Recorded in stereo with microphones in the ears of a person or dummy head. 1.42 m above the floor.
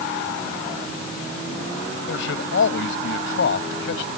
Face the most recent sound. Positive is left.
turn(degrees=90)